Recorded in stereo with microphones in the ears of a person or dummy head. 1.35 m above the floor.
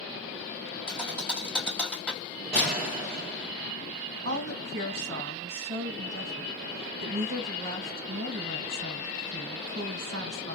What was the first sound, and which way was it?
A thud, centre (ahead or behind).